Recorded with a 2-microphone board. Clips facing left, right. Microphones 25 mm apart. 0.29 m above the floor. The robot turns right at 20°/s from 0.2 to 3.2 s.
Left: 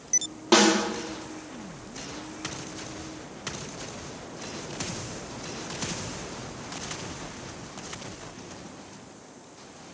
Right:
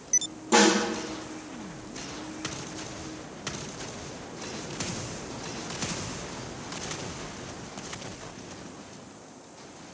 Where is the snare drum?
50° left (ahead or behind), 2.5 m; by 0.7 s 45° left (ahead or behind), 2.5 m.